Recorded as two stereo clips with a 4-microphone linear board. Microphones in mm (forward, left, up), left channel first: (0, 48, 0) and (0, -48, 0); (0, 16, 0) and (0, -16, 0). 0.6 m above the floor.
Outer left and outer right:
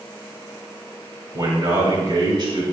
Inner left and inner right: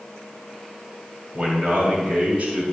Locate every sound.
1.3 s a man speaking: 45° right (ahead or behind), 3.5 m; by 2.6 s 55° right (ahead or behind), 4 m